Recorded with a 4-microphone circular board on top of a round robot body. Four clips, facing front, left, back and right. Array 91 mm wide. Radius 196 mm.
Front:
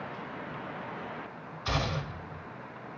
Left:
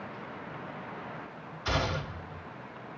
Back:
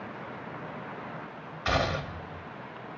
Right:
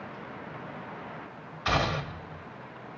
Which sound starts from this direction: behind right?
A gunshot, at 1.6 s.